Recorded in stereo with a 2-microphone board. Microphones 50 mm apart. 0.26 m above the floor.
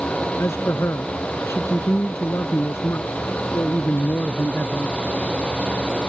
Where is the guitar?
No guitar in this recording.